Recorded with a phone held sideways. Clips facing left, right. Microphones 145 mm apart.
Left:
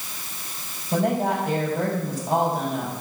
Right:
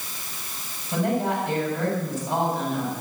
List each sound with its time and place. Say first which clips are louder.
0.9 s a woman speaking: left 2 dB; 35° left (ahead or behind), 5 m